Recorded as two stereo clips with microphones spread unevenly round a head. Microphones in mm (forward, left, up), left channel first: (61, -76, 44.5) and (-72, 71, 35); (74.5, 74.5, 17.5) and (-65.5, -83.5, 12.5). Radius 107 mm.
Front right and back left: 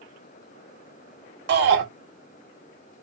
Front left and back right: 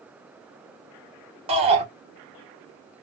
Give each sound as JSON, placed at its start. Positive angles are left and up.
{"t": 1.5, "sound": "a shout", "azimuth_deg": 165, "distance_m": 1.9}